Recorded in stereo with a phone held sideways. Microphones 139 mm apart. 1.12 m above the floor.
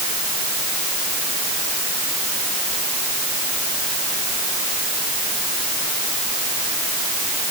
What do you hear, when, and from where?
Only background noise.